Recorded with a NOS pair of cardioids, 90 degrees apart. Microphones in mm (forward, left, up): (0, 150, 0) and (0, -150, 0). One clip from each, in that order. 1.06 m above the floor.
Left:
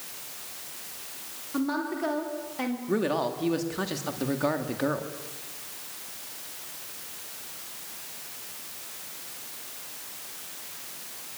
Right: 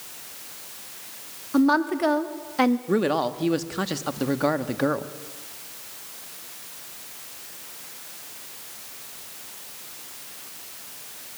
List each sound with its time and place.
1.5 s a woman speaking: 60° right, 3 m; by 2.8 s 65° right, 2.0 m
2.9 s a man speaking: 25° right, 1.8 m